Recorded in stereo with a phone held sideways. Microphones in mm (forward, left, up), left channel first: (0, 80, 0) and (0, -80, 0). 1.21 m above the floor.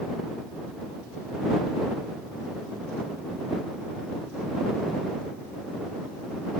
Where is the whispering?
I don't hear whispering.